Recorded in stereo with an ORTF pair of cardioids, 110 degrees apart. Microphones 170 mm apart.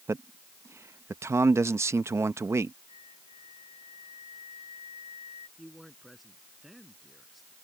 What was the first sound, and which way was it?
A man speaking, 15° right.